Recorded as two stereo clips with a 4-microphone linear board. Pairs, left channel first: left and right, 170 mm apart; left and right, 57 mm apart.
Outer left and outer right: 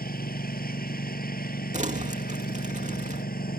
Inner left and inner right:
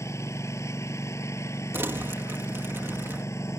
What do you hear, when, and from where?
0.0 s a lawn mower: 60° left (ahead or behind)
1.7 s crumpling: 45° right (ahead or behind)